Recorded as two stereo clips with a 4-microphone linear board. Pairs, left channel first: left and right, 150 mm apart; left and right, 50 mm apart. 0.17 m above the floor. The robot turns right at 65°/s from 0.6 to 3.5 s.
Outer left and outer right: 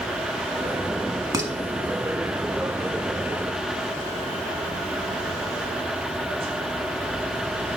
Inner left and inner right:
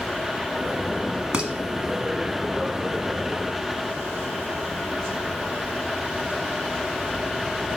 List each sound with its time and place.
1.3 s dishes clattering: 25° right (ahead or behind), 0.9 m; by 1.5 s 20° right (ahead or behind), 0.9 m